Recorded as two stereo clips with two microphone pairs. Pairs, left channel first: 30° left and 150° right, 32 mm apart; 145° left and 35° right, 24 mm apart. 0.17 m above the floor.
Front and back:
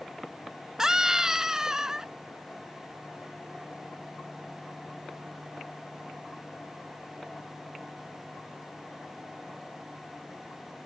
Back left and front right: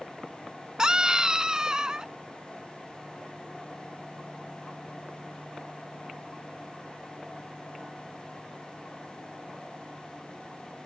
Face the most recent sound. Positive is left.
turn(degrees=-85)